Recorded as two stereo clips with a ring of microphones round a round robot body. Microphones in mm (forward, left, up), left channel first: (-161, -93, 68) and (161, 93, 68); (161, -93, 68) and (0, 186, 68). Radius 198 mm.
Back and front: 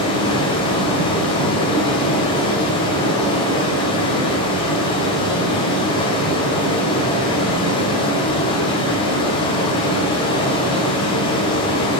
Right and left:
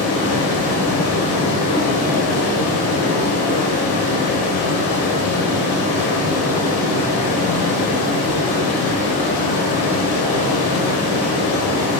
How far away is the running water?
About 1.2 m.